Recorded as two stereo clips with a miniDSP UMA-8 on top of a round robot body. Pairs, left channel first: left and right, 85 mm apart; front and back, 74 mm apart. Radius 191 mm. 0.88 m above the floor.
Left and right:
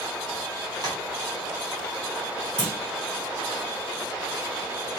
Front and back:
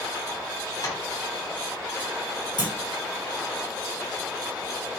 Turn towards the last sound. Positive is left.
turn(degrees=-10)